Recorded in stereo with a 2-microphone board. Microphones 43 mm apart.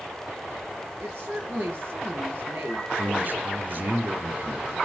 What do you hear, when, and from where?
1.0 s a woman speaking: 60° right (ahead or behind), 4 m
3.0 s a man speaking: 55° right (ahead or behind), 5 m